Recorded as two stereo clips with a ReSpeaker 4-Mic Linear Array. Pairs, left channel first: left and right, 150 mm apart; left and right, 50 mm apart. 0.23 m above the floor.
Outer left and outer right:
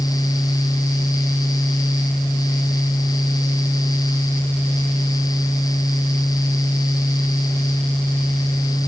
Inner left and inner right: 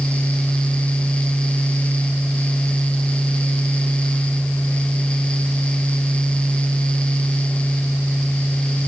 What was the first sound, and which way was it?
Only background noise.